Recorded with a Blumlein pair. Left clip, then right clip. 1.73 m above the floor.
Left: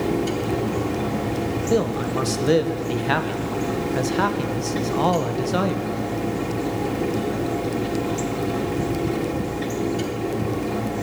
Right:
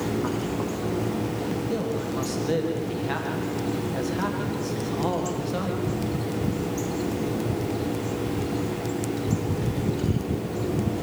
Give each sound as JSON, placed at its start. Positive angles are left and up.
{"t": 0.0, "sound": "a fan", "azimuth_deg": 60, "distance_m": 4.5}
{"t": 1.7, "sound": "a man speaking", "azimuth_deg": 25, "distance_m": 1.8}